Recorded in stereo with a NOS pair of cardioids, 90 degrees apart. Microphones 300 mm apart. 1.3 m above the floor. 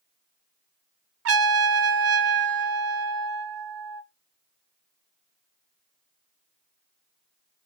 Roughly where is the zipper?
No zipper in this recording.